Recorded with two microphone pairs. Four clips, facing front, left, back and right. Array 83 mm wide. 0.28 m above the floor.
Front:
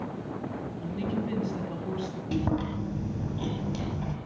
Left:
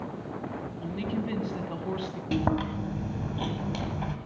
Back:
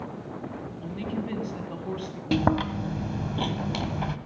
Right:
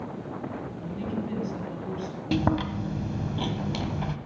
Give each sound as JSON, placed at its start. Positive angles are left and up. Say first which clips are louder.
{"t": 0.8, "sound": "a woman speaking", "louder": "left 1 dB, front 1 dB", "azimuth_deg": 110, "distance_m": 1.8}
{"t": 2.3, "sound": "chewing", "louder": "right 2 dB, back 5 dB", "azimuth_deg": 170, "distance_m": 1.6}